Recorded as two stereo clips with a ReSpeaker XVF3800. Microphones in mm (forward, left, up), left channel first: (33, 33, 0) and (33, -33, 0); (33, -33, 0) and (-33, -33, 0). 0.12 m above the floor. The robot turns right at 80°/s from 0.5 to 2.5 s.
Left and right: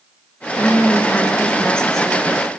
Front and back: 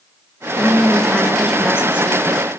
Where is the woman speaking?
45° left, 1.1 m; by 2.5 s 165° right, 1.1 m.